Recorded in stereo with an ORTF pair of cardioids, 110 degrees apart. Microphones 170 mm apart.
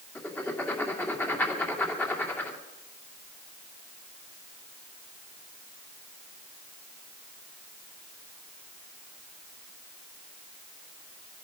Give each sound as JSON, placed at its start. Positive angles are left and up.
{"t": 0.1, "sound": "writing", "azimuth_deg": 10, "distance_m": 2.5}